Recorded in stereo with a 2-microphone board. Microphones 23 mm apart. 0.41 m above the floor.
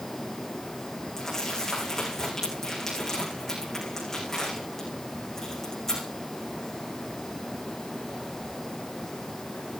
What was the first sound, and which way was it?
Crumpling, 20° left (ahead or behind).